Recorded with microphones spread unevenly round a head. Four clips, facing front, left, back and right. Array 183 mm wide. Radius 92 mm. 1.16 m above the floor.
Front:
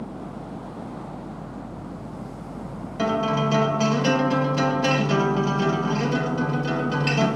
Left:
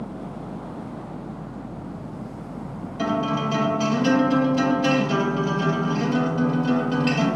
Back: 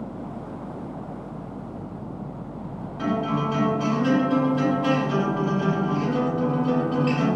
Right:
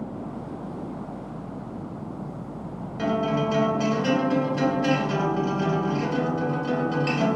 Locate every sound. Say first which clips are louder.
3.0 s a guitar: even, front 2 dB; 5° right, 2 m